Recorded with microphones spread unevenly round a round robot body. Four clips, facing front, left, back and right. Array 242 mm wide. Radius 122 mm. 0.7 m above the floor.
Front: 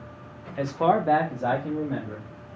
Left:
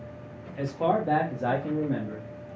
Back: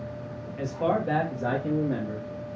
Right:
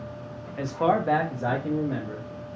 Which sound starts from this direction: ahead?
A man speaking, at 0.6 s.